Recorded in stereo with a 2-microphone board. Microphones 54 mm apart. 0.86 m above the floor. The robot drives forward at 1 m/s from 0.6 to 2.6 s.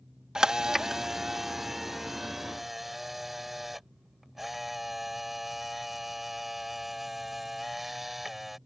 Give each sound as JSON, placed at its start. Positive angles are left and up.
{"t": 0.3, "sound": "a camera shutter", "side_deg": -10}